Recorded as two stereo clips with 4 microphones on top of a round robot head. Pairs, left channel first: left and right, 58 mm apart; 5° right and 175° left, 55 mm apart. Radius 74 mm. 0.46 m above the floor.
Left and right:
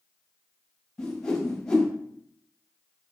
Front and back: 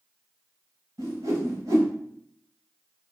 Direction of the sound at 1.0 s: 170° left.